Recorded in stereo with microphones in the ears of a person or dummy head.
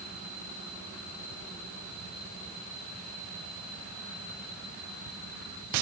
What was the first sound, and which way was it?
Only background noise.